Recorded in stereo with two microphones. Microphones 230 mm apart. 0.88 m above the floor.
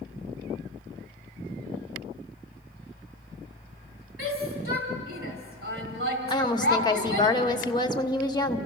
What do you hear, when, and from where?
4.2 s a shout: 65° right (ahead or behind), 3 m
6.3 s a woman speaking: 20° left (ahead or behind), 1.2 m